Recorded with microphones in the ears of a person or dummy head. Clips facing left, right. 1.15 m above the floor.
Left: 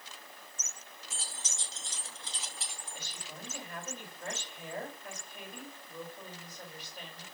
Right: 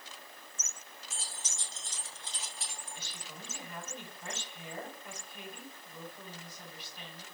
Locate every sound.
1.1 s keys jangling: 60° left (ahead or behind), 1.0 m
3.0 s a woman speaking: 50° left (ahead or behind), 4.5 m